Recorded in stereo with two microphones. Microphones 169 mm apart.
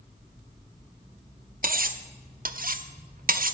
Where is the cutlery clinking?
60° right (ahead or behind), 0.7 m.